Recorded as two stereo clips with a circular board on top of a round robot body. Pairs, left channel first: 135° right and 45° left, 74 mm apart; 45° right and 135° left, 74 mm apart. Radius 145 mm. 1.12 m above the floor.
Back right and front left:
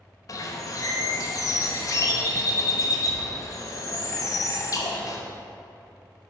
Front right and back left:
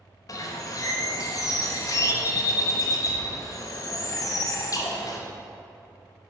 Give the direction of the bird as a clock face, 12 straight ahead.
3 o'clock.